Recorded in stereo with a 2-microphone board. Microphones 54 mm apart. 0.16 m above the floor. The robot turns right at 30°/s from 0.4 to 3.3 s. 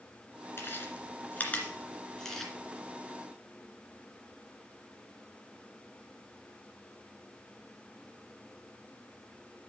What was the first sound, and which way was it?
Chewing, 45° left (ahead or behind).